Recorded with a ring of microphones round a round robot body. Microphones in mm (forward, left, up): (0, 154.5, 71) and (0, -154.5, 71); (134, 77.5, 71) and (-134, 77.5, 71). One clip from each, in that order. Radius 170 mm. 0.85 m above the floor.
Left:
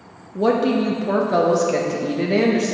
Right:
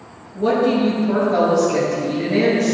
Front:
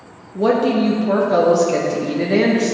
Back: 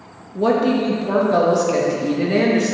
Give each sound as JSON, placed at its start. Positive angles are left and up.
{"t": 0.3, "sound": "a woman speaking", "azimuth_deg": 85, "distance_m": 1.0}